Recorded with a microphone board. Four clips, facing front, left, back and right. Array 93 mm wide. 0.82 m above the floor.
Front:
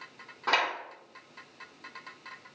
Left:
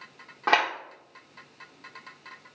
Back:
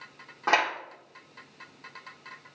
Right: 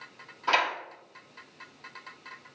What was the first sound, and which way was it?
A clap, 110° left.